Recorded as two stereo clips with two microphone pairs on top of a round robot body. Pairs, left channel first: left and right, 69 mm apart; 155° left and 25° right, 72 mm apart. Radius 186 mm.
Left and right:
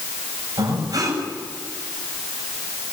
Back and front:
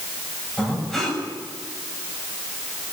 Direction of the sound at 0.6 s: 120° right.